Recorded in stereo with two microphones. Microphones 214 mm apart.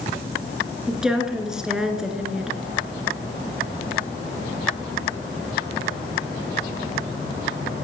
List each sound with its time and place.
0.9 s a woman speaking: 5° right (ahead or behind), 2.5 m